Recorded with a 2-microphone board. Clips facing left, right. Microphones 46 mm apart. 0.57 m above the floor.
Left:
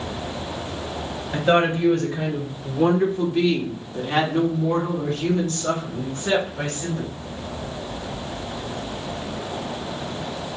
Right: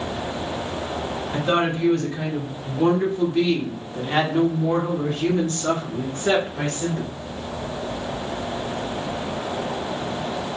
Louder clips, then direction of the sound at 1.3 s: Left 3 dB; 30° left (ahead or behind).